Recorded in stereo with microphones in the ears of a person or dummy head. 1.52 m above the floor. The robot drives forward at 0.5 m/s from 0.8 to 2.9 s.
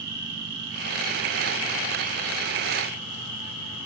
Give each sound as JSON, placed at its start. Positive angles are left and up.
{"t": 0.0, "sound": "an insect", "side_deg": -70, "distance_m": 1.0}